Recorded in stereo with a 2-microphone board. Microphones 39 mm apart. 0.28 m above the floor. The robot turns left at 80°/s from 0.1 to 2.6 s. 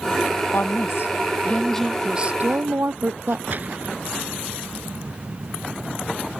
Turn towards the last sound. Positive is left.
turn(degrees=-45)  # may be behind; listen again after turning